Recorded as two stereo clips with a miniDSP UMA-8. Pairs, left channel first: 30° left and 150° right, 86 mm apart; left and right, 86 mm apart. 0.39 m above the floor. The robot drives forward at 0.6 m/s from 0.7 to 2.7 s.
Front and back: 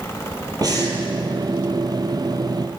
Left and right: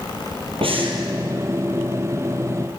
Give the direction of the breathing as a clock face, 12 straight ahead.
3 o'clock.